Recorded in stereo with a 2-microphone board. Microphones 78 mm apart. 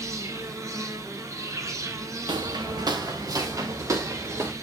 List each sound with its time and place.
0.0 s an insect: 40° right (ahead or behind), 1.5 m
2.3 s footsteps: 80° right, 1.3 m; by 4.5 s 35° right (ahead or behind), 2.5 m